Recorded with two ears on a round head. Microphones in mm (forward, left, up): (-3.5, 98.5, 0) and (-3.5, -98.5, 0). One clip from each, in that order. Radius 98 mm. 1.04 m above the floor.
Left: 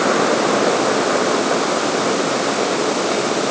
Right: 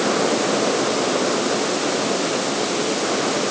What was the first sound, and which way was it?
Only background noise.